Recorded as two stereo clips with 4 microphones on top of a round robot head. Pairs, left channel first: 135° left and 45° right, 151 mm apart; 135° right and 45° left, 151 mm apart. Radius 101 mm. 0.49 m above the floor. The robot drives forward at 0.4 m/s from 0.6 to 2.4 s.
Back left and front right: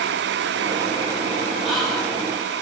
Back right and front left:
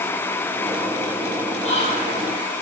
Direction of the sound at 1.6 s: 135° right.